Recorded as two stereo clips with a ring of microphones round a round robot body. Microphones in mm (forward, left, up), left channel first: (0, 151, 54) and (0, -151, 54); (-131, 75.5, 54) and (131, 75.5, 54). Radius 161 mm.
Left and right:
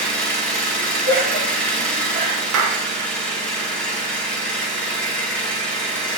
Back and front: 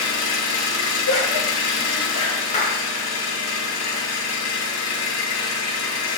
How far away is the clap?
About 1.1 m.